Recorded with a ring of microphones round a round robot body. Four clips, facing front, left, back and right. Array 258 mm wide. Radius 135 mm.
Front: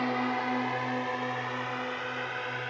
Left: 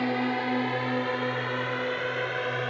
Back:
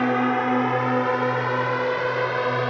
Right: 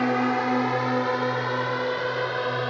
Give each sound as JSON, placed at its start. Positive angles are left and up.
{"t": 0.0, "sound": "a drone", "azimuth_deg": -160}